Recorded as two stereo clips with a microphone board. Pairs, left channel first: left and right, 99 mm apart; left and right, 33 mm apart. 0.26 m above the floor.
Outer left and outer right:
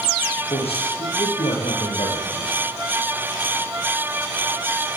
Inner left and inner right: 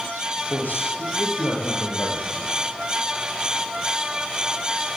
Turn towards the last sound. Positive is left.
turn(degrees=75)  # may be behind; listen again after turning